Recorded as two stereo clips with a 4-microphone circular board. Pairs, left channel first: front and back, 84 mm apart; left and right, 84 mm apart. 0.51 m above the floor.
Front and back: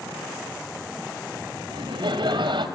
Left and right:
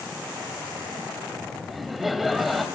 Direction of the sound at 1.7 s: Straight behind.